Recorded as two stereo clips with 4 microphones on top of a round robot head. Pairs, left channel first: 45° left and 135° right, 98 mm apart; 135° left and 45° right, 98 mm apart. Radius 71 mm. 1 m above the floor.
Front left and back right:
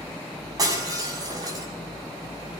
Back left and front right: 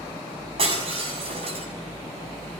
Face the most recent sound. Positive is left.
turn(degrees=-80)